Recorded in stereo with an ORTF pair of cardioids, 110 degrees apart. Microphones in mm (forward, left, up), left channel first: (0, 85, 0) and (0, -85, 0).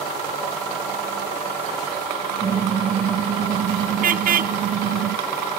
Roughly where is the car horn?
Ahead right.